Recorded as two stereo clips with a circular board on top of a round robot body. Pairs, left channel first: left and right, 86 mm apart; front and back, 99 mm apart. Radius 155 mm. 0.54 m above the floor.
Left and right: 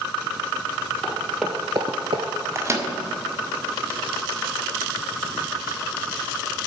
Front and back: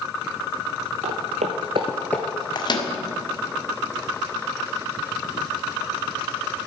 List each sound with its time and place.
1.0 s footsteps: 170° left, 1.2 m; by 2.2 s 65° right, 0.7 m
2.5 s a microwave: 40° right, 1.8 m